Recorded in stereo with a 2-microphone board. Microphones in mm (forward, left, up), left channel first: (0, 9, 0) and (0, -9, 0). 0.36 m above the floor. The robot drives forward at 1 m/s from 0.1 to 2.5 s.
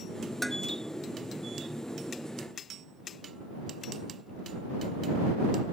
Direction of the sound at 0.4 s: 5° left (ahead or behind).